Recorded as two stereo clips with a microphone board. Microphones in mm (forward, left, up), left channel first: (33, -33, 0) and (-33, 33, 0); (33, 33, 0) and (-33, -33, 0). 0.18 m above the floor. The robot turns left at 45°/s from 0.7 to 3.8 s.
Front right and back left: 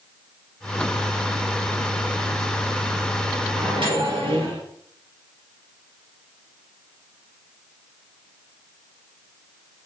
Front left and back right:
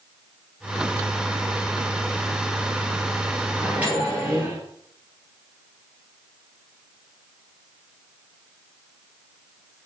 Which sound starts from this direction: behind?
A microwave, at 3.5 s.